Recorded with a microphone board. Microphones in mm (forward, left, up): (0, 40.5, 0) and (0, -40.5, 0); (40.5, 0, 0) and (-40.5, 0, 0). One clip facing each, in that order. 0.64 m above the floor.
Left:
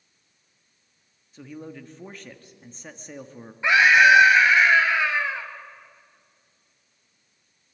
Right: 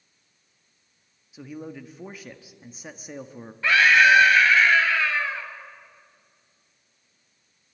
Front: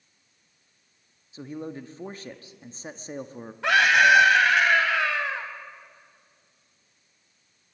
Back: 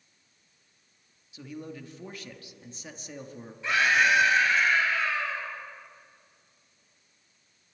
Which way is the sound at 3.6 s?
20° left.